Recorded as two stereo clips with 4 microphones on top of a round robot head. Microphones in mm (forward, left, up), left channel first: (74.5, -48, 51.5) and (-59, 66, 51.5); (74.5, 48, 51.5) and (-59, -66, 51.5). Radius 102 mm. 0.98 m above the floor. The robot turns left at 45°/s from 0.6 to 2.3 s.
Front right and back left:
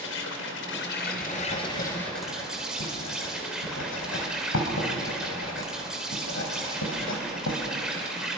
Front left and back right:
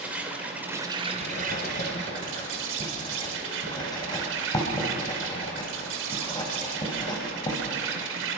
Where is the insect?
60° right, 2 m; by 8.4 s 135° right, 2 m.